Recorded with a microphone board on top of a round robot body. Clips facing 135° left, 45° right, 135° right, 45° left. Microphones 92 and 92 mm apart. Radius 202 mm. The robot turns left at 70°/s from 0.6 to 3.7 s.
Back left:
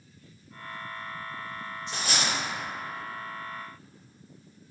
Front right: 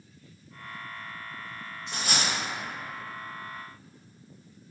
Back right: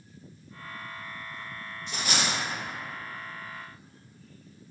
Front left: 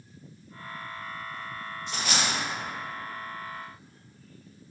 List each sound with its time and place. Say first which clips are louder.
1.9 s a dropped coin: even, even; 50° right, 1.1 m; by 2.3 s 85° right, 1.1 m